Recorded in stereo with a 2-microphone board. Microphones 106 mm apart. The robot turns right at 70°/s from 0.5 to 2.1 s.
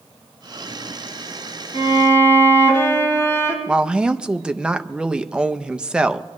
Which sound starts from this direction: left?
A violin, at 1.7 s.